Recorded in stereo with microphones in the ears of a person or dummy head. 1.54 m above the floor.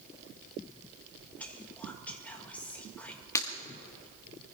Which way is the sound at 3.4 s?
15° left (ahead or behind).